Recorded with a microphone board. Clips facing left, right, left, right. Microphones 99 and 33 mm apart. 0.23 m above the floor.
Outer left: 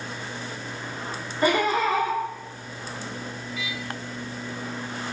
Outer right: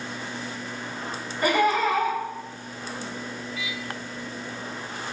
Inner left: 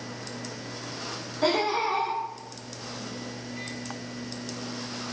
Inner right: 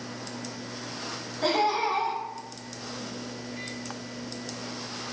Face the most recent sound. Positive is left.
turn(degrees=30)  # may be behind; listen again after turning